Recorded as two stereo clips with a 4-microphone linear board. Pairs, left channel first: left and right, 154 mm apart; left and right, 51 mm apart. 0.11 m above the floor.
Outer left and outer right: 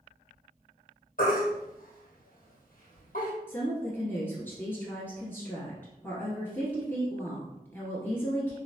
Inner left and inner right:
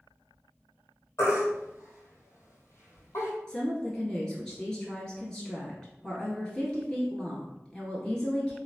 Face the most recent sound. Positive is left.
turn(degrees=15)  # may be behind; listen again after turning